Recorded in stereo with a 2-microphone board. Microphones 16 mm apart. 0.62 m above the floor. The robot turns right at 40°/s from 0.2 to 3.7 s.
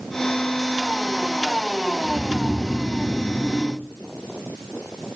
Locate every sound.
2.0 s snoring: 115° right, 8.5 m; by 3.8 s 45° right, 8.5 m